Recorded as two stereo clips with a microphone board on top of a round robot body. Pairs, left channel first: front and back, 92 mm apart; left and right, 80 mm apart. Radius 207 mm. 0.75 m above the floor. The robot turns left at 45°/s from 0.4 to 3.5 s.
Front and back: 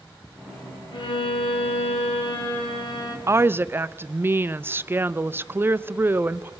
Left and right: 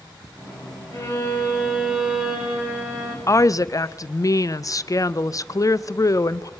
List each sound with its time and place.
0.9 s a violin: 45° left, 3 m; by 3.2 s 55° right, 3 m
3.3 s a woman speaking: 130° left, 0.6 m; by 6.5 s 120° left, 0.6 m